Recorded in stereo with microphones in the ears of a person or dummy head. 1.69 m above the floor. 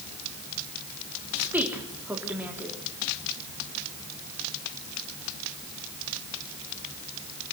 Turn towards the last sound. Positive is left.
turn(degrees=-10)  # may be behind; listen again after turning